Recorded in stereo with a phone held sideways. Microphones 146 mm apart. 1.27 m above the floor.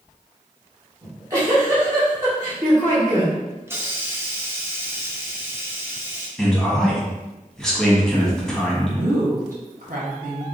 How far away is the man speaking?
About 1.4 m.